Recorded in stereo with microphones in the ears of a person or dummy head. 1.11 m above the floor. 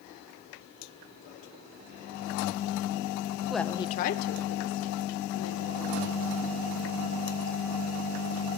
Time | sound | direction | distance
3.5 | a woman speaking | 5° right (ahead or behind) | 0.9 m